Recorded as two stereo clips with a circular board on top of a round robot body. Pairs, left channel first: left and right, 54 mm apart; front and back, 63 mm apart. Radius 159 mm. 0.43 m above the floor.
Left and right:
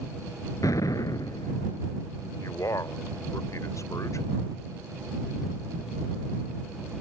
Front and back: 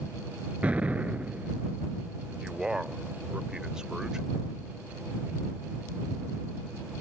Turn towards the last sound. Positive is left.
turn(degrees=100)